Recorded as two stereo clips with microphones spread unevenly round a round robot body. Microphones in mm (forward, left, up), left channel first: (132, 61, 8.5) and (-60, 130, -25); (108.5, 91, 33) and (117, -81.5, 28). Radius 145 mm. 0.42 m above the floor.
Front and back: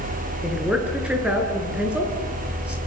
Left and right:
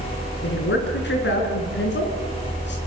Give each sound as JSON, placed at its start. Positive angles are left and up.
{"t": 0.4, "sound": "a woman speaking", "azimuth_deg": 75, "distance_m": 7.0}